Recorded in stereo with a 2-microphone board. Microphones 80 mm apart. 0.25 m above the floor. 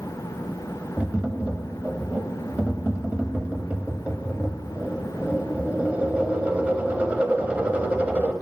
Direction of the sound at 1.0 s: 20° right (ahead or behind).